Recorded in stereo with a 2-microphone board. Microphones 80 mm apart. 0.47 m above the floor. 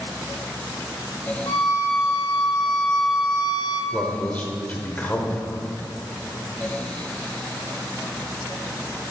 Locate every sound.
1.5 s a violin: 70° left (ahead or behind), 1.1 m
3.9 s a man speaking: 20° left (ahead or behind), 1.4 m